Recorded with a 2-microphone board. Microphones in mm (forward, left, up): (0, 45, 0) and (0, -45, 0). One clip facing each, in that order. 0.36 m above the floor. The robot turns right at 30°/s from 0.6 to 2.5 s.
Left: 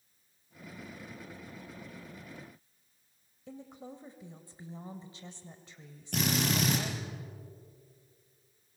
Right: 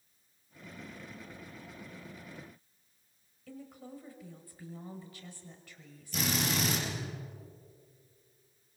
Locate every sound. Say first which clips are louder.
3.5 s a woman speaking: left 1 dB; 25° left (ahead or behind), 1.8 m
6.1 s a drill: left 2 dB; 60° left (ahead or behind), 6.5 m